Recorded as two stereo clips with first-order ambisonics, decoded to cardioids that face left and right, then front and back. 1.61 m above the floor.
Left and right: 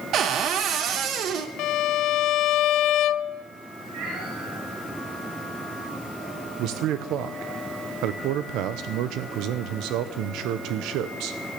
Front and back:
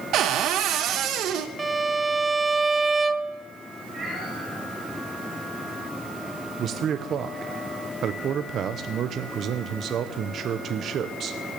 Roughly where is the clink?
I don't hear a clink.